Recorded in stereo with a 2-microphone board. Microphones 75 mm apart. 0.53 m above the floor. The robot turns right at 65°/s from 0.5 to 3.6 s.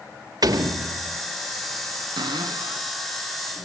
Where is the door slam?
110° right, 1.6 m; by 1.2 s 70° right, 1.6 m.